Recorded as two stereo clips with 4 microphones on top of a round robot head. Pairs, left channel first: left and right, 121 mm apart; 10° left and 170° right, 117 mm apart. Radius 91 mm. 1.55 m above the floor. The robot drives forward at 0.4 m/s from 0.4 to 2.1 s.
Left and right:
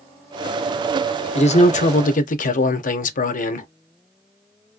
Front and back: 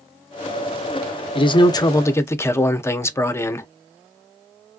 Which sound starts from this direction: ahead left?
A man speaking, at 1.4 s.